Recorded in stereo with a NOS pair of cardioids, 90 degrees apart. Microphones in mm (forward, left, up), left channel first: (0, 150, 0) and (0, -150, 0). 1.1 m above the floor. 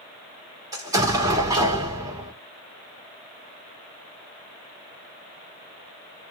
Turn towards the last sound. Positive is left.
turn(degrees=-10)